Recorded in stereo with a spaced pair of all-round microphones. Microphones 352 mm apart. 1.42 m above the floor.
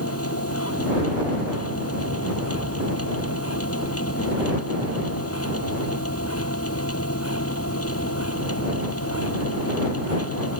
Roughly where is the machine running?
Left.